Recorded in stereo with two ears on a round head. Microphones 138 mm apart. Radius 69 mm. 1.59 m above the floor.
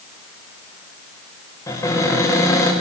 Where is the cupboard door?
20° left (ahead or behind), 5.5 m.